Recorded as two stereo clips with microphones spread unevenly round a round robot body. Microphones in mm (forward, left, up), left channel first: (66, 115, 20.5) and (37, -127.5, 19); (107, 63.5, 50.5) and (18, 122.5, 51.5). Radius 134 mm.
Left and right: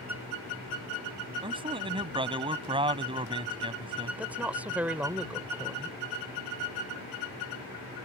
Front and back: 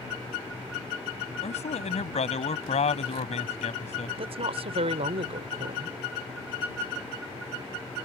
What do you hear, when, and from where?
1.4 s a man speaking: 30° right
4.2 s a woman speaking: straight behind